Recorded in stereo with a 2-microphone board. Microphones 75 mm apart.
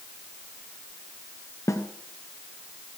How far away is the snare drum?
About 1.3 m.